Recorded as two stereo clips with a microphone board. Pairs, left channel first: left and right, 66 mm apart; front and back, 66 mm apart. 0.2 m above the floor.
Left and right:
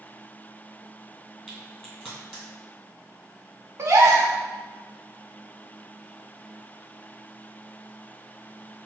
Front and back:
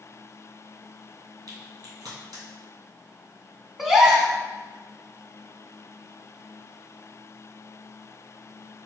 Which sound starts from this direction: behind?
A crack, at 1.5 s.